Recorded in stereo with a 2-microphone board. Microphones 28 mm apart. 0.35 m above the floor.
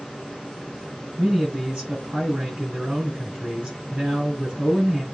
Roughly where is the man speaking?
Right.